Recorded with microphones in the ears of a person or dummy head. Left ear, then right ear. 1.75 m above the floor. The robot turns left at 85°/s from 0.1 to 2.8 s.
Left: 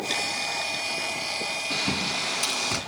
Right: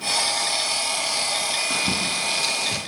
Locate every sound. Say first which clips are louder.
1.7 s a bird: right 3 dB; 25° right (ahead or behind), 4 m; by 2.8 s 55° left (ahead or behind), 4 m